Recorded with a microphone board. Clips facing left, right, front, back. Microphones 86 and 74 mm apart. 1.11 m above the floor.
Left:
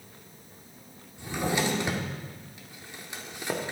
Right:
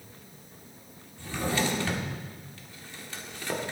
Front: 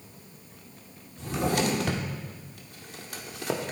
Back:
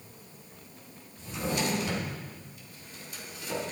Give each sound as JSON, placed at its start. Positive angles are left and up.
{"t": 1.2, "sound": "a drawer", "azimuth_deg": 20, "distance_m": 1.5}